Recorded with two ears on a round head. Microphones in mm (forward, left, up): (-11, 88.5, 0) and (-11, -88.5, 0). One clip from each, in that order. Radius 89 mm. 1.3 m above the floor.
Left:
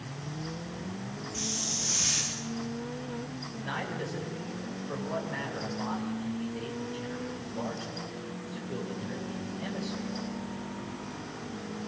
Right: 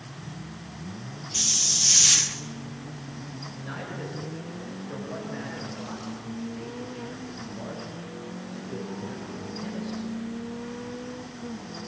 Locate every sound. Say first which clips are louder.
1.3 s a hiss: right 10 dB; 70° right (ahead or behind), 2 m
3.6 s a man speaking: left 3 dB; 45° left (ahead or behind), 7 m